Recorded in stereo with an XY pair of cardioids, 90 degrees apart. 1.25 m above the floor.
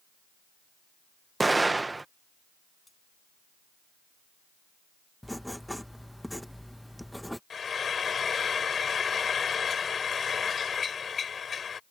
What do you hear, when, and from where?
1.4 s an explosion: 20° right
2.9 s cutlery clinking: 15° left
5.2 s writing: straight ahead
7.5 s frying: 50° left